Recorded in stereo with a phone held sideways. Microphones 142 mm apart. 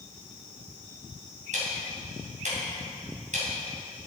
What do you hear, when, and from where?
1.5 s ticking: 65° right (ahead or behind), 3 m